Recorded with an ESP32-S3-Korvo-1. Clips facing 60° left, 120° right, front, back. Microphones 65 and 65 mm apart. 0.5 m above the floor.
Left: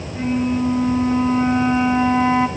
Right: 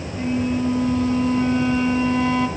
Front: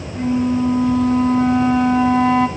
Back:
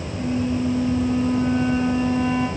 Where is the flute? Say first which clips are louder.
Left 2 dB, front 6 dB; 5° right, 1.4 m.